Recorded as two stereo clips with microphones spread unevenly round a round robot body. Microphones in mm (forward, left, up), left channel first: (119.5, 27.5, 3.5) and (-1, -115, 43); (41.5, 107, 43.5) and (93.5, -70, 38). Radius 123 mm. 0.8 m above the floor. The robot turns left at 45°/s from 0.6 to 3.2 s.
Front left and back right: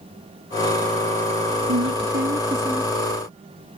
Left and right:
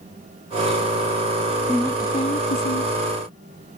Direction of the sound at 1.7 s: 165° right.